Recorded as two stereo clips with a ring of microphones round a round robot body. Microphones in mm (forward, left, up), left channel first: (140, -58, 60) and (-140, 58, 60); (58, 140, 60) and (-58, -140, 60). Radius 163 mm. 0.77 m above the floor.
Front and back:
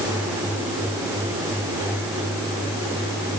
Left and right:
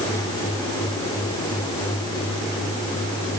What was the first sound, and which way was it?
Only background noise.